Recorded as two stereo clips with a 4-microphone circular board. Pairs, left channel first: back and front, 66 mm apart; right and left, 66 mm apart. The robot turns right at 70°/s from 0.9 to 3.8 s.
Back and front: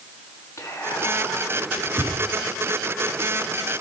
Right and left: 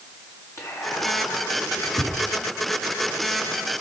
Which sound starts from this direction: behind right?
Whispering, at 0.6 s.